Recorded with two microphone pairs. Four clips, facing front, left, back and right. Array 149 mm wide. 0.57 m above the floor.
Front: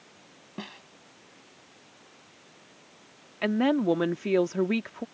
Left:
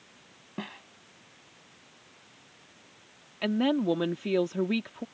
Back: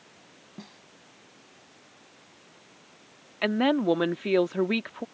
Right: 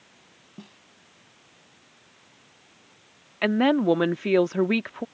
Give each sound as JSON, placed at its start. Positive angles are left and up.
{"t": 0.6, "sound": "a snare drum", "azimuth_deg": 55}
{"t": 3.4, "sound": "a woman speaking", "azimuth_deg": -110}